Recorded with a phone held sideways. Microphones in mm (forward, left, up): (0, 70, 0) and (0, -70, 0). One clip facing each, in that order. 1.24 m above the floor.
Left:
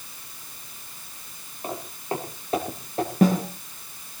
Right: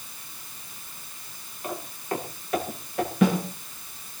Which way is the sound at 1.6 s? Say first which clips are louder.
Left 1 dB; 25° left (ahead or behind).